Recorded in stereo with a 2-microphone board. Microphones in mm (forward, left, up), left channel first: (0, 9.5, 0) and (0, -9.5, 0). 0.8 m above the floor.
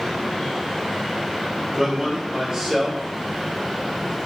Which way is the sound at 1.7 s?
30° right (ahead or behind).